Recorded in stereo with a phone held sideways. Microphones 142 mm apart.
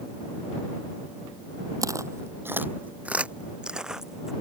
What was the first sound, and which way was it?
Footsteps, 25° right (ahead or behind).